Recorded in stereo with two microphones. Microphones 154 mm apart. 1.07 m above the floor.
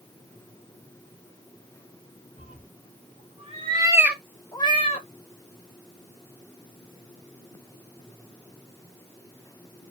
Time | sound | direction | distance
2.4 | a cat meowing | 60° right (ahead or behind) | 1.3 m